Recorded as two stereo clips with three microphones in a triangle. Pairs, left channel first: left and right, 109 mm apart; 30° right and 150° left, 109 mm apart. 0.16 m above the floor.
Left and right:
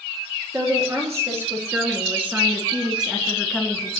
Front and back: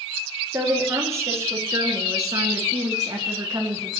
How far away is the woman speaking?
About 3.5 m.